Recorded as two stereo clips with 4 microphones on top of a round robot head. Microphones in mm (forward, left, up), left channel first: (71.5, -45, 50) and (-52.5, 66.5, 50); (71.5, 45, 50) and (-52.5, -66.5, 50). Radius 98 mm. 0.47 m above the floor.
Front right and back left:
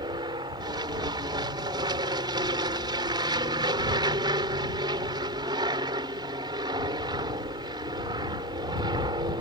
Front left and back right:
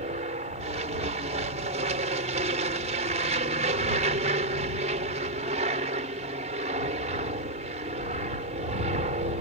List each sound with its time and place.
0.0 s an aircraft: 165° right